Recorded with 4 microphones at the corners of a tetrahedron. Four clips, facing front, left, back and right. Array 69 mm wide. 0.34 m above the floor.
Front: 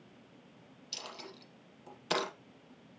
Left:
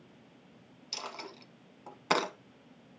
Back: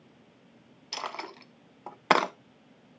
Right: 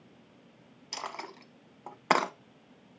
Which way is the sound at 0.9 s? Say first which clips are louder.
Right 3 dB, back 11 dB; 155° right.